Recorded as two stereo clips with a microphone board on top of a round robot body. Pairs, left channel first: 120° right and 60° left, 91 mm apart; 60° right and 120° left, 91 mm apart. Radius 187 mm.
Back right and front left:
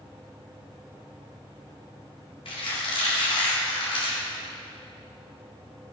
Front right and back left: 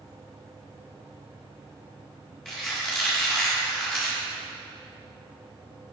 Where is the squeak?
145° right, 1.7 m.